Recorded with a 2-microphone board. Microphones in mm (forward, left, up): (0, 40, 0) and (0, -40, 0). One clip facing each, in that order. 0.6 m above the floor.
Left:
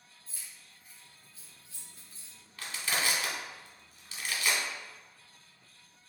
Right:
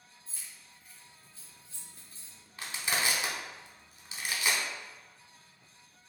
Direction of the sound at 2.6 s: 20° right (ahead or behind).